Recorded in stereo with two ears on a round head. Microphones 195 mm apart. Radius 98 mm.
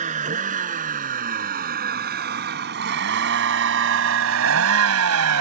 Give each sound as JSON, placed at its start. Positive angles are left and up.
{"t": 0.0, "sound": "a vehicle", "side_deg": -30}